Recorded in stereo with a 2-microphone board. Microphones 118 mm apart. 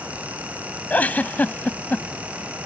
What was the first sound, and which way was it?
A giggle, 15° left (ahead or behind).